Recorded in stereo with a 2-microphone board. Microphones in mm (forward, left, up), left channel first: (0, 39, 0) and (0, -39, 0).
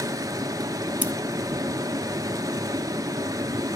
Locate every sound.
0.0 s running water: 50° right (ahead or behind), 0.7 m
1.0 s scissors: 20° right (ahead or behind), 0.7 m